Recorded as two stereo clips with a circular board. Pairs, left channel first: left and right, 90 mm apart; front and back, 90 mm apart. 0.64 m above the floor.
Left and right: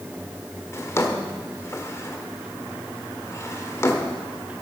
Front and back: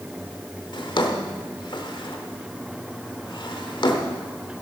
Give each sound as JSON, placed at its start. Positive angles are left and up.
{"t": 0.7, "sound": "a drawer", "azimuth_deg": 30, "distance_m": 1.2}